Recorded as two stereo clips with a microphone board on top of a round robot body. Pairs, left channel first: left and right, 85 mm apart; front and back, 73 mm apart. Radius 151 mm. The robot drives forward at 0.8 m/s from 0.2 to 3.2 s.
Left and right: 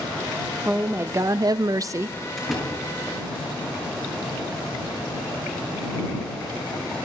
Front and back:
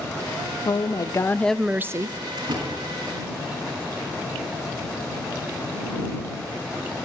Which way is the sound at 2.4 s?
175° left.